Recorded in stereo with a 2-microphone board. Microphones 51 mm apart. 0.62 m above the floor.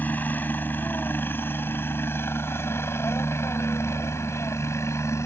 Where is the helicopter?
35° left (ahead or behind); by 5.3 s 70° left (ahead or behind).